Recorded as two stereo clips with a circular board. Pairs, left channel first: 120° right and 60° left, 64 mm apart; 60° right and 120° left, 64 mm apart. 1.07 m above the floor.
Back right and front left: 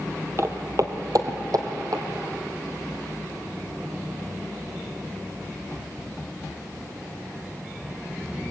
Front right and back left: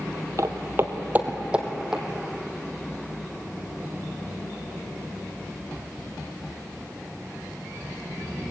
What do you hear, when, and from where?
0.4 s footsteps: 95° left, 1.9 m; by 2.0 s 35° left, 3 m